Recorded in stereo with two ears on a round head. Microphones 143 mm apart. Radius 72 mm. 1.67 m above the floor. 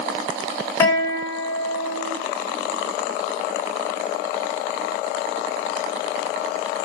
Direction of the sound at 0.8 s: 15° left (ahead or behind).